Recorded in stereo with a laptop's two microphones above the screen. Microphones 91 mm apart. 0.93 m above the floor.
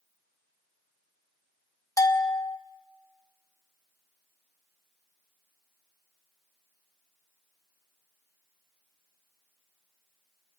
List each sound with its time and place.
2.0 s a bell: 40° left (ahead or behind), 1.4 m